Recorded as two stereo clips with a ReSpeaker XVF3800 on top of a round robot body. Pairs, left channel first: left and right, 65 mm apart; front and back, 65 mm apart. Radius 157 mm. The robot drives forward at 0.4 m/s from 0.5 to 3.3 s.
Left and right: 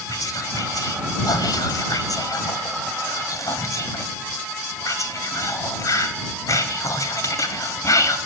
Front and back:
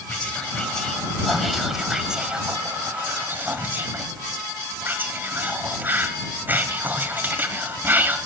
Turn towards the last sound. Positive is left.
turn(degrees=120)